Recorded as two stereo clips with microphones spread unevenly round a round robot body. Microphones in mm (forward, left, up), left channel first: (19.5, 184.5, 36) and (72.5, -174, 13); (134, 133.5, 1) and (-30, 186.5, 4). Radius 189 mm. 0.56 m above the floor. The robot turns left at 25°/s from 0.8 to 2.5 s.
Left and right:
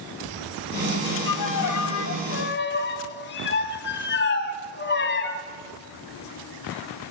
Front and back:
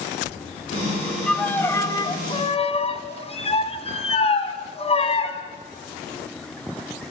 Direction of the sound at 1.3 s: 70° left.